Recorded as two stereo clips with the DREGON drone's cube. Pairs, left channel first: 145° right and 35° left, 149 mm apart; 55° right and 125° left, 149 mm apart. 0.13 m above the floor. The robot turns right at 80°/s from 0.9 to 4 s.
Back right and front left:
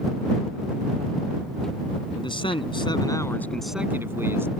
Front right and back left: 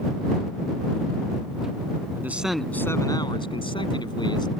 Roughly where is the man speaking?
Behind.